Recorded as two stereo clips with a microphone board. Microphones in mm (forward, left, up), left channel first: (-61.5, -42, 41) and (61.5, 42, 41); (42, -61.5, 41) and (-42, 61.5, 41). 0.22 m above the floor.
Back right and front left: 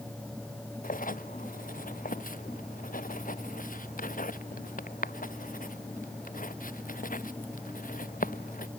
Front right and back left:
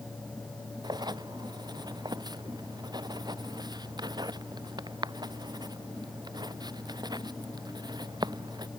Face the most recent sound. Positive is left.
turn(degrees=-170)